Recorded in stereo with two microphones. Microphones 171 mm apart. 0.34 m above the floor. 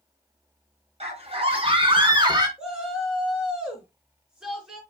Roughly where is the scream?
Right.